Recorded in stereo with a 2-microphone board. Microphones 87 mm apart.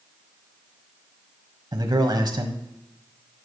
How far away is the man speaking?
About 1.5 m.